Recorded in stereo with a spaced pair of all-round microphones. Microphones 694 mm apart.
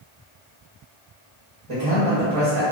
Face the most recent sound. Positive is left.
turn(degrees=-45)  # may be behind; listen again after turning